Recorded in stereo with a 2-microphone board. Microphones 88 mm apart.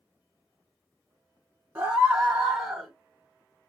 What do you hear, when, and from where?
1.8 s a scream: 30° right (ahead or behind), 1.8 m; by 2.9 s 10° right (ahead or behind), 1.6 m